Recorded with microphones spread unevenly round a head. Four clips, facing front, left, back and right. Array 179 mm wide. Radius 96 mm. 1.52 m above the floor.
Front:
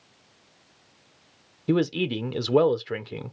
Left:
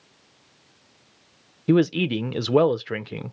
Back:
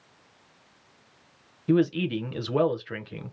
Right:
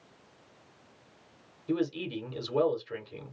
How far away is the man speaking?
About 0.8 m.